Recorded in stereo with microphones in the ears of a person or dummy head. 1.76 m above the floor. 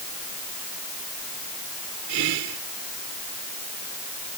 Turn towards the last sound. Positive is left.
turn(degrees=-75)  # may be behind; listen again after turning